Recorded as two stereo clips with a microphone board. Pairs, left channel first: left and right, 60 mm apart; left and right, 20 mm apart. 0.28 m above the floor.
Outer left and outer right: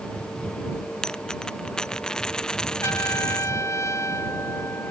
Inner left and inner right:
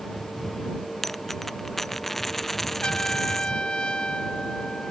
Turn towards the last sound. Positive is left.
turn(degrees=50)  # may be behind; listen again after turning